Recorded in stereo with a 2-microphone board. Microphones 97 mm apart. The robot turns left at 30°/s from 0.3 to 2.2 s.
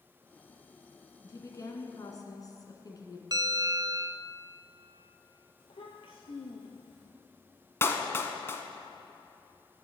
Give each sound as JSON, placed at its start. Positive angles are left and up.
{"t": 1.2, "sound": "a woman speaking", "side_deg": 30, "distance_m": 2.0}
{"t": 3.3, "sound": "a bell", "side_deg": -45, "distance_m": 0.5}
{"t": 5.6, "sound": "a child speaking", "side_deg": 70, "distance_m": 3.0}
{"t": 7.8, "sound": "a clap", "side_deg": 25, "distance_m": 1.0}